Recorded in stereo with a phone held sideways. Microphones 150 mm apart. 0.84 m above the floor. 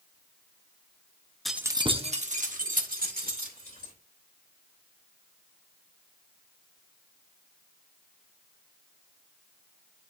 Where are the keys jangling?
Centre (ahead or behind), 0.7 m; by 3.9 s 75° right (ahead or behind), 3 m.